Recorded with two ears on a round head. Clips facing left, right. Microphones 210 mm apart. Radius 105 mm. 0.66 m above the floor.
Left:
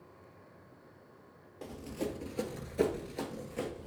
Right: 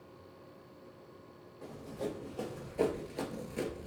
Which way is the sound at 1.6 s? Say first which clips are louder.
Left 2 dB; 55° left (ahead or behind).